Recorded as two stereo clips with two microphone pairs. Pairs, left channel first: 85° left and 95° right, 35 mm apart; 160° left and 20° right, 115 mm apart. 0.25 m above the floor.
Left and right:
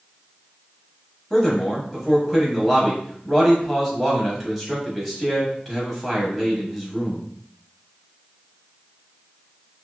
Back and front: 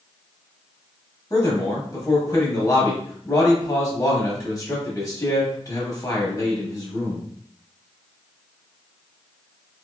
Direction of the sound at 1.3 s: 170° left.